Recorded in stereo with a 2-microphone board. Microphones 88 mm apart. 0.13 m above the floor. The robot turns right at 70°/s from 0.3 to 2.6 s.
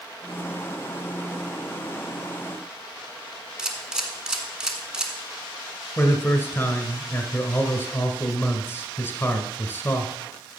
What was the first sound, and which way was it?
A camera shutter, 10° right (ahead or behind).